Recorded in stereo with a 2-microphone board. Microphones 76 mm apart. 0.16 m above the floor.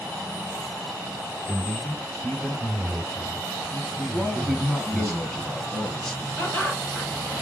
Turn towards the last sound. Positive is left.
turn(degrees=15)  # may be behind; listen again after turning